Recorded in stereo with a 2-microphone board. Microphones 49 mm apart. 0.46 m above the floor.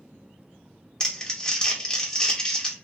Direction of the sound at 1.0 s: 15° left (ahead or behind).